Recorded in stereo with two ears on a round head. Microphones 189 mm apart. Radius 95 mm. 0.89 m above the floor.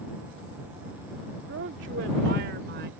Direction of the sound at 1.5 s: 65° right (ahead or behind).